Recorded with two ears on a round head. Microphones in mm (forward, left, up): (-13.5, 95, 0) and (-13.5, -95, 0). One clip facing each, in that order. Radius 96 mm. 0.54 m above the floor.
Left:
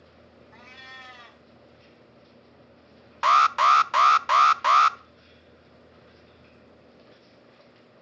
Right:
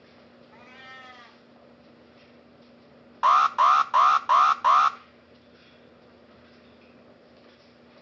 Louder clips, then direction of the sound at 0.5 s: Right 1 dB; 55° left (ahead or behind).